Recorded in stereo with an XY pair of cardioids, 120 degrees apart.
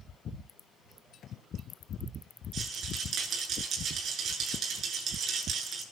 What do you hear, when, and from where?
2.5 s a rattle: 50° right, 10 m